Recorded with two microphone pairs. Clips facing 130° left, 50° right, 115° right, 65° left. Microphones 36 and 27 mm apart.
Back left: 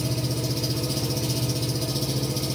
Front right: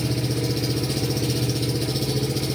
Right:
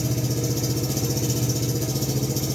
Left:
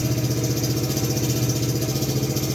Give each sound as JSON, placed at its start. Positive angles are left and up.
{"t": 0.0, "sound": "an engine running", "azimuth_deg": 0, "distance_m": 2.0}